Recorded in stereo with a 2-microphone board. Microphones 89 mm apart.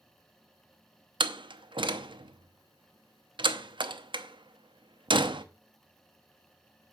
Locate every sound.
1.2 s a door slam: 75° right (ahead or behind), 0.7 m